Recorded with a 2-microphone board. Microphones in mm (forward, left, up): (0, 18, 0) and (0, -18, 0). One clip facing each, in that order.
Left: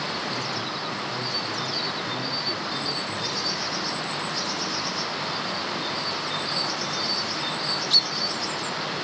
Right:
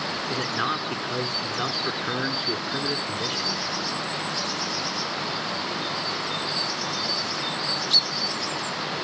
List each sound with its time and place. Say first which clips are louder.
0.3 s a man speaking: right 3 dB; 65° right (ahead or behind), 2.5 m